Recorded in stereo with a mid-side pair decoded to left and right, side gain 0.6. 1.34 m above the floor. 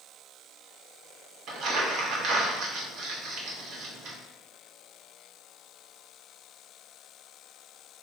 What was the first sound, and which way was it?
Crumpling, 65° right.